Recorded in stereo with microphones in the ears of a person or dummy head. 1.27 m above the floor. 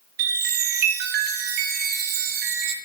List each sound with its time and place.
0.2 s a chime: 60° right (ahead or behind), 0.5 m